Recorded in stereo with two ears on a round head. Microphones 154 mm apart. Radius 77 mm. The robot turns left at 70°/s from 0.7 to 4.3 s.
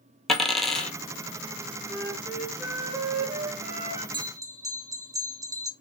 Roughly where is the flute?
Ahead left.